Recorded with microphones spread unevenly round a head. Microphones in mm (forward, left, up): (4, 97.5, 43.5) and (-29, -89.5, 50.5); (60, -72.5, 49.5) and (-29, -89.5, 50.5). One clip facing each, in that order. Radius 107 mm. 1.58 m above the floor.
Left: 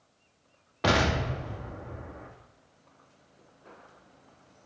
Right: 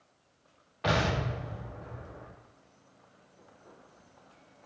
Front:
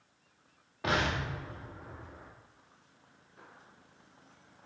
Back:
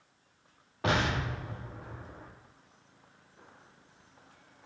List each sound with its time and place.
0.8 s an explosion: 120° left, 2.5 m